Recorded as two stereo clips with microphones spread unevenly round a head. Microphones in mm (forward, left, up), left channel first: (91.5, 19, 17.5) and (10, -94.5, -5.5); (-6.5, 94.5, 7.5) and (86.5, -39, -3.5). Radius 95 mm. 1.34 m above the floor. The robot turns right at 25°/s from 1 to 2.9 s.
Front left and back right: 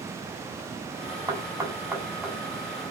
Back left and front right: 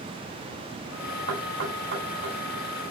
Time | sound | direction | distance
1.3 | knocking | 65° right | 5.5 m